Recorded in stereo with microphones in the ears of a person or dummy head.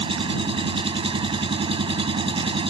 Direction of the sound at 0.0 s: 25° right (ahead or behind).